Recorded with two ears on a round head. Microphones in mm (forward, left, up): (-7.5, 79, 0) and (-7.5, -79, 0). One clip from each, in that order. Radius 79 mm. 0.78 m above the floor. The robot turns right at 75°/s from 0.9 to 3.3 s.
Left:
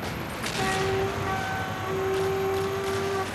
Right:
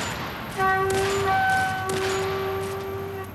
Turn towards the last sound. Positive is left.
turn(degrees=60)